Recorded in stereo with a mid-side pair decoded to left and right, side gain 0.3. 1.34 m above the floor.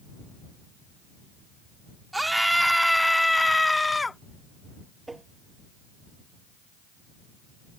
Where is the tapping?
30° right.